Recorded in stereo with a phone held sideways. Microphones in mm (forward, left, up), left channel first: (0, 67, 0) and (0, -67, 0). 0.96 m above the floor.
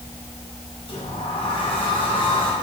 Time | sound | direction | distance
0.9 | a sliding door | 40° left (ahead or behind) | 5 m